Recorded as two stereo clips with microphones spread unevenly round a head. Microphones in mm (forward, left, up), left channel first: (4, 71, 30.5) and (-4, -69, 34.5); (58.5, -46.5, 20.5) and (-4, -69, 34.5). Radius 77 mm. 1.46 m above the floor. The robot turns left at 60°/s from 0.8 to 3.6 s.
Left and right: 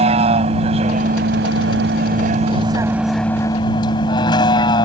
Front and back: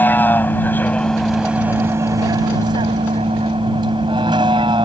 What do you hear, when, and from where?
0.0 s a vehicle: 45° right; by 4.9 s 150° left